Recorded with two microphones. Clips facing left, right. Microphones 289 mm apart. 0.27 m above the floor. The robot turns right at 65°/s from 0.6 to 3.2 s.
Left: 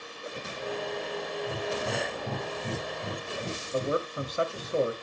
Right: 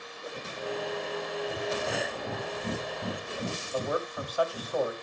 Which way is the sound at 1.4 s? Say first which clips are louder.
Left 1 dB; 50° left (ahead or behind).